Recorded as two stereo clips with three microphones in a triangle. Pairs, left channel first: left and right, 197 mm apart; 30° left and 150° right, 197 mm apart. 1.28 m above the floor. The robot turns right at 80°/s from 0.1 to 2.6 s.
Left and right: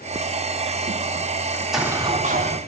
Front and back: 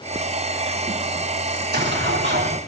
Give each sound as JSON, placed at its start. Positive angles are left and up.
{"t": 1.5, "sound": "an explosion", "azimuth_deg": 165, "distance_m": 3.5}